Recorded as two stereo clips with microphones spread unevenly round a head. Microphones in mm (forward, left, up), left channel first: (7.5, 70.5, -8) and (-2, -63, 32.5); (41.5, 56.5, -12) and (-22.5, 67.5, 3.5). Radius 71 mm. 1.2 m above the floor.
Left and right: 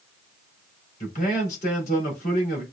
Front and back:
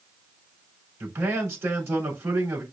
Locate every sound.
1.0 s a man speaking: 125° left, 4 m